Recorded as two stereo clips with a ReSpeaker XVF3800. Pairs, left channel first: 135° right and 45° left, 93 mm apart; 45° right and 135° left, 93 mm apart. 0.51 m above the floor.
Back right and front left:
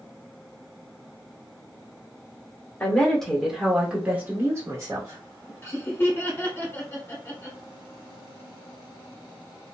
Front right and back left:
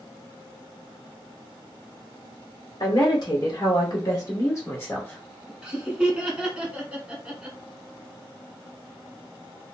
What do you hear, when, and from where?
2.8 s a woman speaking: 60° right, 1.3 m; by 5.5 s 25° left, 1.3 m
5.6 s laughter: 155° right, 1.3 m